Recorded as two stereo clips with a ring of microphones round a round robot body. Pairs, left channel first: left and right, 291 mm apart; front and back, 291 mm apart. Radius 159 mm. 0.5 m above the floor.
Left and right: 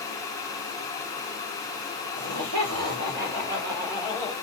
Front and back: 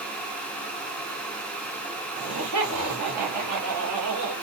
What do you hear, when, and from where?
2.2 s laughter: 125° right, 1.5 m; by 4.3 s 170° left, 1.2 m